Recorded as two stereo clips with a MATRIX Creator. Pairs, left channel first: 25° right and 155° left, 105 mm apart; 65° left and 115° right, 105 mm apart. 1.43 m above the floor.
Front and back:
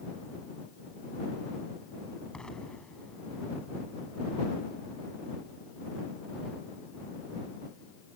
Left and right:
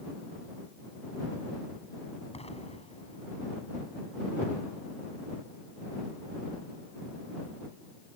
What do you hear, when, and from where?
2.3 s an explosion: 60° left